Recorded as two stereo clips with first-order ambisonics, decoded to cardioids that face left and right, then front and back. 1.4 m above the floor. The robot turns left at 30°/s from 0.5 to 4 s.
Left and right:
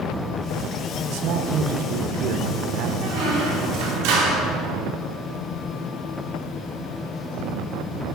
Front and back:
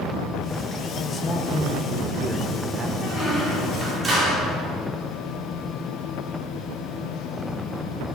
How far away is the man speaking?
About 1.0 m.